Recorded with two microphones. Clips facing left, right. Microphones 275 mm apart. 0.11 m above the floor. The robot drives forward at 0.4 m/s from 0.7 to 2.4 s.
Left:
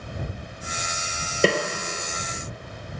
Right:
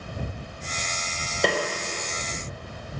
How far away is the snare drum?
About 1.2 m.